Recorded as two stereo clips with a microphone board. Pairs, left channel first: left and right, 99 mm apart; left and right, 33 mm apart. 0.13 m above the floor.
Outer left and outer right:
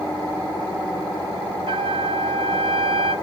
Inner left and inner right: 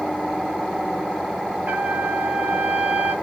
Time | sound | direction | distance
1.7 | a trumpet | 65° right (ahead or behind) | 0.6 m